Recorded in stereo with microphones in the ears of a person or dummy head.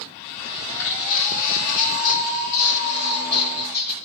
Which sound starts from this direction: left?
Footsteps, at 0.5 s.